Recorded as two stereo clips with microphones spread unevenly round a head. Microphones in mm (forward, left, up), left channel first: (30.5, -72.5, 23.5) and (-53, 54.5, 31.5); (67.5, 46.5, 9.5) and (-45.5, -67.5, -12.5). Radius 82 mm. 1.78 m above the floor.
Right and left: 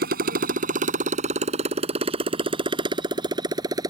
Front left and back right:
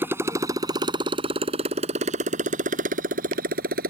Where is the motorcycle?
145° left; by 3.9 s 170° right.